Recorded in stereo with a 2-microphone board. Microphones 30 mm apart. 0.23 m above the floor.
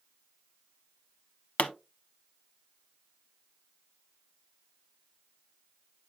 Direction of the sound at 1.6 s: 40° left (ahead or behind).